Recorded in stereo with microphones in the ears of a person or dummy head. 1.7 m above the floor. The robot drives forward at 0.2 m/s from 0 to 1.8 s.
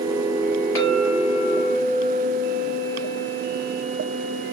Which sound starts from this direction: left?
A clink, at 0.8 s.